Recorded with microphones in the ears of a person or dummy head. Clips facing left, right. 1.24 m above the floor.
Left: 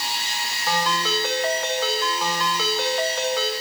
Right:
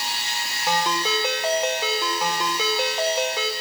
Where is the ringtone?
15° right (ahead or behind), 3 m.